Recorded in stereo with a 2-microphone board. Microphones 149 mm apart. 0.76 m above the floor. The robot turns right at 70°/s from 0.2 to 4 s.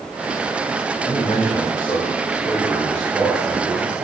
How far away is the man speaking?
About 2.5 m.